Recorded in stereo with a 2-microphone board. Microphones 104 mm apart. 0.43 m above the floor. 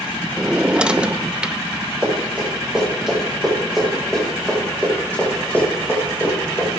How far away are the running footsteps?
About 8.5 m.